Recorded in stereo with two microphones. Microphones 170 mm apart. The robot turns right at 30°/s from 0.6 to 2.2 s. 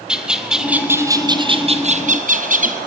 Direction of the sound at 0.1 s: 175° right.